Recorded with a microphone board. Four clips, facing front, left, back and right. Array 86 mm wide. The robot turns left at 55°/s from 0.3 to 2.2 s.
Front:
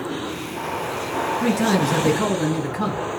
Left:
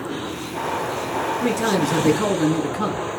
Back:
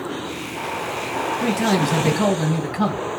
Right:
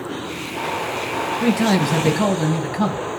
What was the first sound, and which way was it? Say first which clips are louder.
A man speaking: right 4 dB, even; 85° right.